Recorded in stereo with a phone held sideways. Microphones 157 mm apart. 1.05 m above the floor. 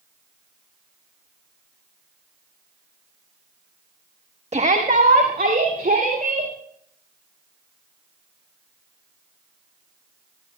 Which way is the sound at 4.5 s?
45° right (ahead or behind).